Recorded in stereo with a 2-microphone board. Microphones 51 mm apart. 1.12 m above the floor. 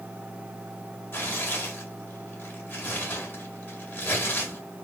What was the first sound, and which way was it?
Tearing paper, 40° left (ahead or behind).